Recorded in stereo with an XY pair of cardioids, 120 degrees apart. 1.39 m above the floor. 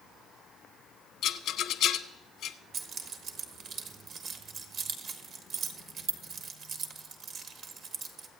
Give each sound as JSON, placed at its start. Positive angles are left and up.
{"t": 1.2, "sound": "a rattle", "azimuth_deg": 70, "distance_m": 0.9}
{"t": 2.7, "sound": "keys jangling", "azimuth_deg": -60, "distance_m": 1.2}